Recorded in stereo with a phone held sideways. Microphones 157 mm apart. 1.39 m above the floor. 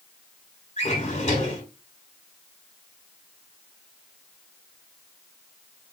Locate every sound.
0.8 s a drawer: 45° left (ahead or behind), 1.6 m